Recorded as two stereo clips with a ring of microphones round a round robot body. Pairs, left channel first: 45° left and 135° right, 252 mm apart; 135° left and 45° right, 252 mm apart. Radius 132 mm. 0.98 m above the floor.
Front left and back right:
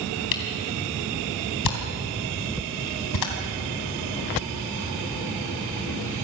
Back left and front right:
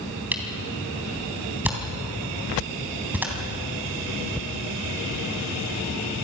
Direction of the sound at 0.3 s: 40° left.